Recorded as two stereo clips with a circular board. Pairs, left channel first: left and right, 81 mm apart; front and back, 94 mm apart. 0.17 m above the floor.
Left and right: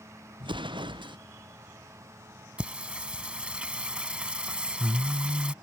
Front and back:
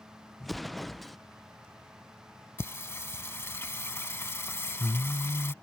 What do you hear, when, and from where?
0.4 s an explosion: 90° right
2.6 s singing: 25° right